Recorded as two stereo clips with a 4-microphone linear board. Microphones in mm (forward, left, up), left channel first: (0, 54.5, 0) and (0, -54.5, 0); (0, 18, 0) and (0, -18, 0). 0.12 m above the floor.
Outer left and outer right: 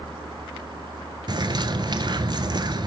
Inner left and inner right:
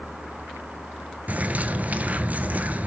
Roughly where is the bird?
Right.